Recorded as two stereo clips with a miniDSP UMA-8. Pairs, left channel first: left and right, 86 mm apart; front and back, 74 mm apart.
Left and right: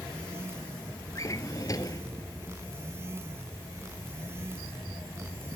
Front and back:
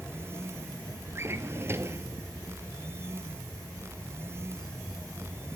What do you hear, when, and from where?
1.1 s a drawer: 130° left, 1.0 m